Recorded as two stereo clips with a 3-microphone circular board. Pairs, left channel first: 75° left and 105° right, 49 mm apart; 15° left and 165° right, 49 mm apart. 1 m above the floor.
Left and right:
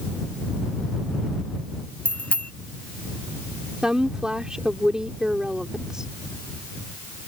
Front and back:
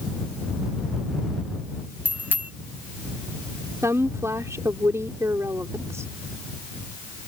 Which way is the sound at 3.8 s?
Straight behind.